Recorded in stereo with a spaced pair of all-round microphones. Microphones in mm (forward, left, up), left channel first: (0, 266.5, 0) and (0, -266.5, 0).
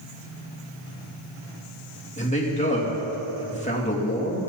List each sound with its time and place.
2.2 s a man speaking: 15° left (ahead or behind), 3 m